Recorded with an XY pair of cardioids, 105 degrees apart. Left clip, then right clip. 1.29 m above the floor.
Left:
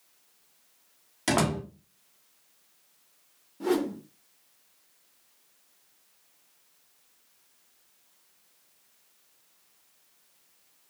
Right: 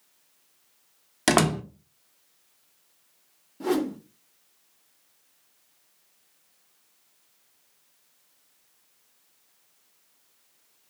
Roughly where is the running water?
I don't hear running water.